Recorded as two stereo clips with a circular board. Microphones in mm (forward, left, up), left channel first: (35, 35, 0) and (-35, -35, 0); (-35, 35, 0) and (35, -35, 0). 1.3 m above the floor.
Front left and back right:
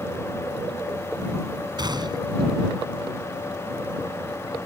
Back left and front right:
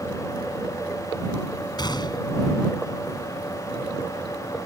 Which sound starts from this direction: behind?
A gunshot, at 1.8 s.